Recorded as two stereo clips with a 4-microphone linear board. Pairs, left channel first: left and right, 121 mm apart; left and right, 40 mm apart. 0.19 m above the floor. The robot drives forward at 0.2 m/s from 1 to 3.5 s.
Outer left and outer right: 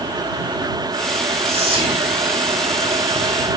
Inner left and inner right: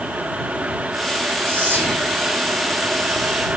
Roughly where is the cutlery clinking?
No cutlery clinking in this recording.